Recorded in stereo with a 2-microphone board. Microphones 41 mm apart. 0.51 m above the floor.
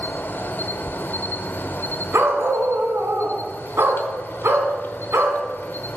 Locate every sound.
0.0 s an insect: 60° left (ahead or behind), 1.0 m
2.1 s a dog barking: 80° right, 1.9 m